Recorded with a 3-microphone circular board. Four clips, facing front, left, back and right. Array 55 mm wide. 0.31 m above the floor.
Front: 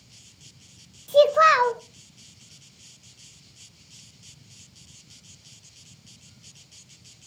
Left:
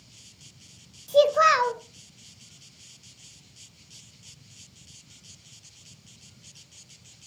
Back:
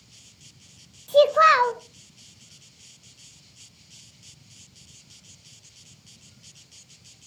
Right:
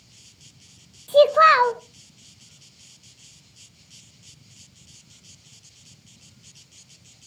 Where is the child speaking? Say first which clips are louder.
Right 5 dB, even; 105° right, 0.6 m.